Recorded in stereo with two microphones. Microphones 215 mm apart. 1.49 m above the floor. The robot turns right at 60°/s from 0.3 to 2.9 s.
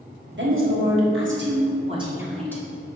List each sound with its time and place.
0.3 s a woman speaking: 120° right, 1.5 m; by 3.0 s 30° left, 1.5 m